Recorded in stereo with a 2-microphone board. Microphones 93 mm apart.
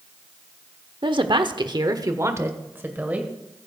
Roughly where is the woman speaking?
Right.